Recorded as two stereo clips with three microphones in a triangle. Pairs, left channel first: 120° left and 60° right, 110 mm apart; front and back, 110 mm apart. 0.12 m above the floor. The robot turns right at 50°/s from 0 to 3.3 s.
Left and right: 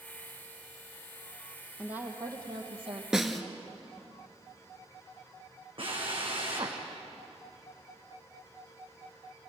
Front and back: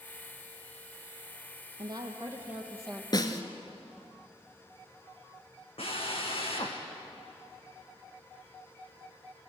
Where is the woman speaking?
140° right, 3.5 m; by 3.0 s 80° right, 3.5 m.